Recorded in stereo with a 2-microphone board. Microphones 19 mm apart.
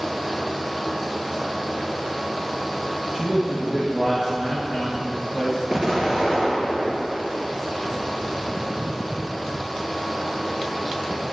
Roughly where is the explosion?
Right.